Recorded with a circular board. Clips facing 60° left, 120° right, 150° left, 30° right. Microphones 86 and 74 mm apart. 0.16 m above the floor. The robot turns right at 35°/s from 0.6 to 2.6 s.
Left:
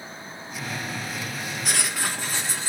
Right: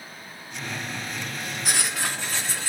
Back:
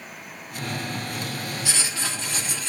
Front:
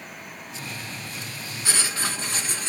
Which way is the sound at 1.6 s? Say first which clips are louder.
Even, front 1 dB; 35° right.